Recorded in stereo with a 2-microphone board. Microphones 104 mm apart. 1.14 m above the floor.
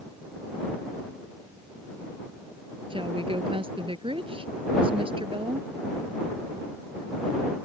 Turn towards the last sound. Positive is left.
turn(degrees=-55)  # may be behind; listen again after turning